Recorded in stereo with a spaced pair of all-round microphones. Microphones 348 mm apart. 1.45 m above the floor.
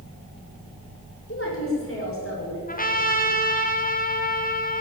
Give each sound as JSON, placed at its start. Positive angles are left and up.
{"t": 1.3, "sound": "a woman speaking", "side_deg": 40, "distance_m": 5.5}
{"t": 2.7, "sound": "a trumpet", "side_deg": 25, "distance_m": 1.6}